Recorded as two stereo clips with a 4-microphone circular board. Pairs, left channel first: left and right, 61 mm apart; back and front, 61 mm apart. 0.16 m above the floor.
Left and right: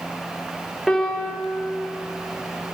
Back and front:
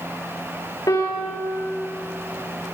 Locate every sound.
0.9 s a piano: straight behind, 8 m